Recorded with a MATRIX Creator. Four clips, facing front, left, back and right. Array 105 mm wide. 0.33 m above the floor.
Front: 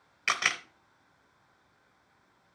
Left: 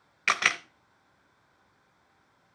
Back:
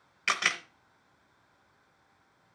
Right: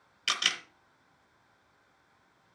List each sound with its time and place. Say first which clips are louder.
0.3 s a camera shutter: left 7 dB, even; 85° left, 0.7 m